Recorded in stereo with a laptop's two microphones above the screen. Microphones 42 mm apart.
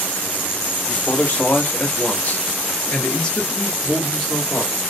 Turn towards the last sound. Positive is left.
turn(degrees=-5)  # may be behind; listen again after turning